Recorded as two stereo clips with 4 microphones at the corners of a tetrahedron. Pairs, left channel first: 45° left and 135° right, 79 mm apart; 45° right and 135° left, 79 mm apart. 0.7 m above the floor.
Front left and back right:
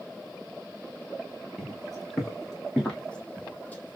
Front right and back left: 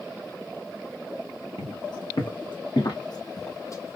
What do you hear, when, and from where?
1.6 s footsteps: 45° right, 2.5 m; by 4.0 s 5° right, 0.9 m